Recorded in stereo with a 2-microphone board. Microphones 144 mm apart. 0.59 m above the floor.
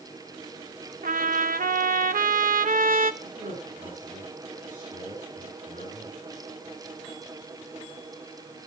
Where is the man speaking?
75° right (ahead or behind), 8 m.